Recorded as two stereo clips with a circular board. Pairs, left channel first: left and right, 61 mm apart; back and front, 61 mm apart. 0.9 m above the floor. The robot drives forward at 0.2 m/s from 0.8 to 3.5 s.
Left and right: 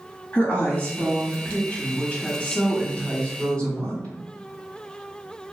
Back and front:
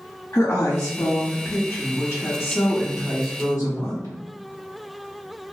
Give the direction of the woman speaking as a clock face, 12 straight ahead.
7 o'clock.